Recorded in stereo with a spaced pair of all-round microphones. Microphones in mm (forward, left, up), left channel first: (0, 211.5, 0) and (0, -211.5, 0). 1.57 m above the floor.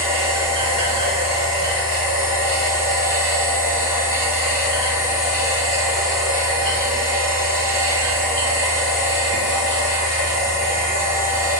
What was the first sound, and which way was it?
A machine running, 55° right (ahead or behind).